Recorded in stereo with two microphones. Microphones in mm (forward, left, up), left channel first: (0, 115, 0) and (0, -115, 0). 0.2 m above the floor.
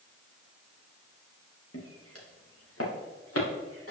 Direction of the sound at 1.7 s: 85° left.